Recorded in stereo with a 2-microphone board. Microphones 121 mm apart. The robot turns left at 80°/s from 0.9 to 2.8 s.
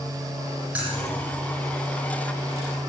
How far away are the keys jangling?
About 9 m.